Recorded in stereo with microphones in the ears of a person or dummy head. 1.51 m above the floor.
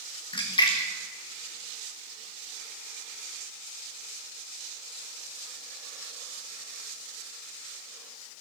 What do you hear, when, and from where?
0.3 s a splash: 25° left (ahead or behind), 1.4 m